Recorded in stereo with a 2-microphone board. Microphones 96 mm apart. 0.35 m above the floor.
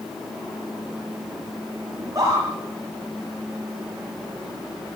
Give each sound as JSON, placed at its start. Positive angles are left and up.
{"t": 2.0, "sound": "a scream", "side_deg": -35, "distance_m": 9.0}